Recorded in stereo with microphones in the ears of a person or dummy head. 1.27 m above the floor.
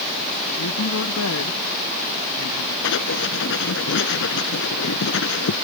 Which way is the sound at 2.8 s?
70° left (ahead or behind).